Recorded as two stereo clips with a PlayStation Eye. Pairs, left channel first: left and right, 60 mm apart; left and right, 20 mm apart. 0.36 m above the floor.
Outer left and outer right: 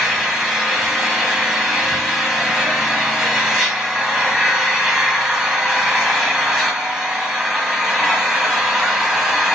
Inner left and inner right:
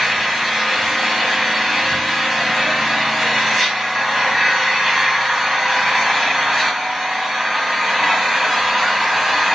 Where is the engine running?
5° right (ahead or behind), 1.3 m.